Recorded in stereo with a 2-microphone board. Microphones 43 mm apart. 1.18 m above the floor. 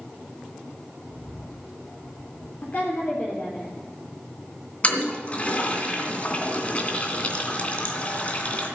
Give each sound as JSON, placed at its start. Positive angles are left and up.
{"t": 1.1, "sound": "a bird", "side_deg": 70, "distance_m": 6.0}
{"t": 2.6, "sound": "a woman speaking", "side_deg": 50, "distance_m": 3.5}
{"t": 4.8, "sound": "a toilet flushing", "side_deg": 30, "distance_m": 2.5}